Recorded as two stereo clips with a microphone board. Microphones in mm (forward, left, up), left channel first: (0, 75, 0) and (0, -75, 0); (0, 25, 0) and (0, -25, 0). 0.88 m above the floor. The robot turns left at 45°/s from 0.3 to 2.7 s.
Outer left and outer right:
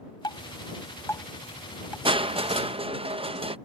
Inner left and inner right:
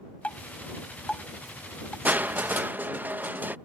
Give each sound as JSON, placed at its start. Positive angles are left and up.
{"t": 0.2, "sound": "dripping", "side_deg": 30}
{"t": 2.0, "sound": "crushing", "side_deg": -35}